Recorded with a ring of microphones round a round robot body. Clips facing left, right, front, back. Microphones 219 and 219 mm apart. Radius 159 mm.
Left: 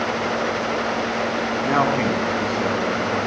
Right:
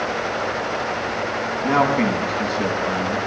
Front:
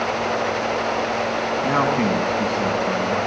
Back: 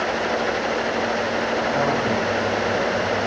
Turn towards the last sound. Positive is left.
turn(degrees=0)